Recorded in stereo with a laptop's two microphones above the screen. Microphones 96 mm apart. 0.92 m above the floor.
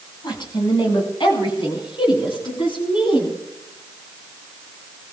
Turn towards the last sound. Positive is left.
turn(degrees=65)  # may be behind; listen again after turning